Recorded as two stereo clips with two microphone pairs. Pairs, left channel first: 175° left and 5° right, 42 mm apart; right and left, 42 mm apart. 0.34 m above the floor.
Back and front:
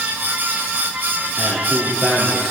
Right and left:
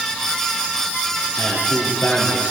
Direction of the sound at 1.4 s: 105° right.